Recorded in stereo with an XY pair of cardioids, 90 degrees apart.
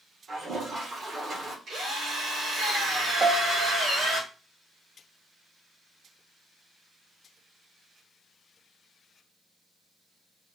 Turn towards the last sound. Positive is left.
turn(degrees=-50)